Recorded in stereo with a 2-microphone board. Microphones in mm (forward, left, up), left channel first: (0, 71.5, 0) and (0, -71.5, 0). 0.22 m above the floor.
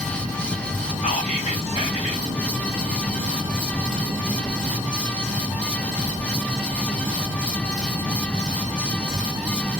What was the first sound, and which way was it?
Whispering, 45° left (ahead or behind).